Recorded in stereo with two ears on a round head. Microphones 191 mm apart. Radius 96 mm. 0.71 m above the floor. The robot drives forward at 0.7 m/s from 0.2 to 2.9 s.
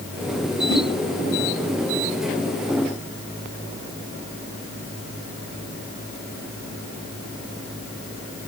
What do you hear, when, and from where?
0.7 s a whoosh: 15° left (ahead or behind), 3 m